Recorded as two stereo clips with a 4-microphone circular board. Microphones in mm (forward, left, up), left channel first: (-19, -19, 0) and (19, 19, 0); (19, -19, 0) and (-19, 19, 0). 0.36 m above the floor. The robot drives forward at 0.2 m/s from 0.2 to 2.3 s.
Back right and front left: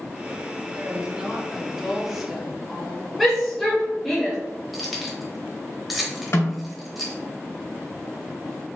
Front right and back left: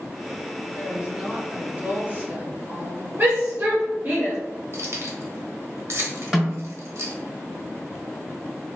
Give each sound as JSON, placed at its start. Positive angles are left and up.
{"t": 0.7, "sound": "a woman speaking", "azimuth_deg": 95, "distance_m": 0.9}
{"t": 3.2, "sound": "a shout", "azimuth_deg": 135, "distance_m": 1.0}
{"t": 4.7, "sound": "keys jangling", "azimuth_deg": 135, "distance_m": 0.9}
{"t": 6.3, "sound": "a snare drum", "azimuth_deg": -145, "distance_m": 1.2}